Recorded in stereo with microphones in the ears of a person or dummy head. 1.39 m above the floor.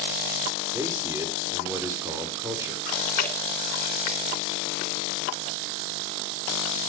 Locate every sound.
0.7 s a man speaking: 15° right (ahead or behind), 4.5 m
2.9 s chewing: 55° left (ahead or behind), 3 m